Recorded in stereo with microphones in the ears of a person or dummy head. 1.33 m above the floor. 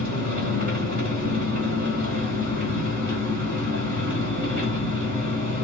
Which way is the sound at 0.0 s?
50° right (ahead or behind).